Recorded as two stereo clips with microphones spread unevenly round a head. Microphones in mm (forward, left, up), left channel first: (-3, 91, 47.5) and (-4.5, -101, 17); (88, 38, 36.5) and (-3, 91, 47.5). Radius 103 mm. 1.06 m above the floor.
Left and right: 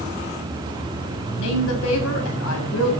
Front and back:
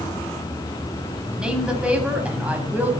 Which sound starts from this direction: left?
A woman speaking, at 1.4 s.